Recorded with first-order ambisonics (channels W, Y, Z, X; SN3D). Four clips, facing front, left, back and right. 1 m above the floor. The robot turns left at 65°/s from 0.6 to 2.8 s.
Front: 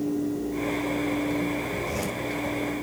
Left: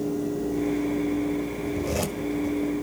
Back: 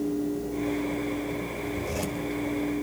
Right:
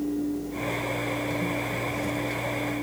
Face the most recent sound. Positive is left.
turn(degrees=35)